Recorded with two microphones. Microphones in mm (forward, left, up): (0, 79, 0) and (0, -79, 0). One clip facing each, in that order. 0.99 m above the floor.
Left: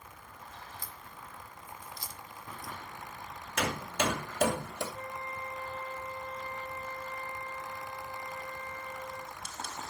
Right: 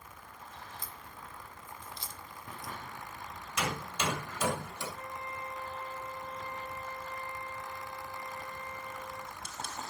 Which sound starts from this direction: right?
A crack, at 0.8 s.